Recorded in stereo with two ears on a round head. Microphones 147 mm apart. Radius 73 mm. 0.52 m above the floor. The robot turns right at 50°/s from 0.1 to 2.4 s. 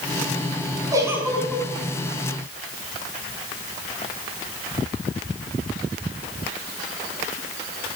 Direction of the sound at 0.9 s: 25° right.